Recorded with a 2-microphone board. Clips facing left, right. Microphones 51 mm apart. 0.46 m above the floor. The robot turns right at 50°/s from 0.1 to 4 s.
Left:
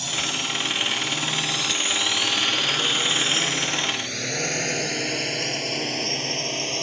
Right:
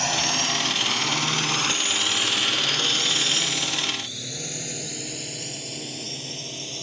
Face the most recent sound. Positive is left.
turn(degrees=60)  # may be behind; listen again after turning